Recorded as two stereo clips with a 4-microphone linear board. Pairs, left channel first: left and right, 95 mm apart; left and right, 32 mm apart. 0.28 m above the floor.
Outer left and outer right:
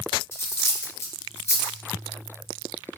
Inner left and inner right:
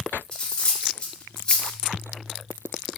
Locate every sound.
0.3 s cutlery clinking: 30° left (ahead or behind), 0.7 m